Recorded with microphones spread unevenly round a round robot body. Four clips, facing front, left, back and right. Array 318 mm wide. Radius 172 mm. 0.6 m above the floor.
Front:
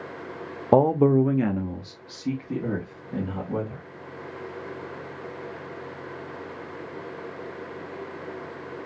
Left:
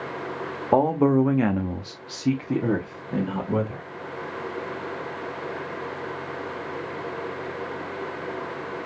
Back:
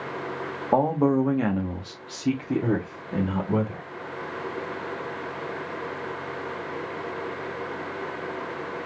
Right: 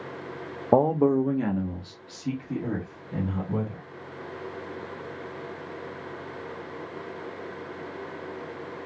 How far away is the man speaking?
About 0.7 m.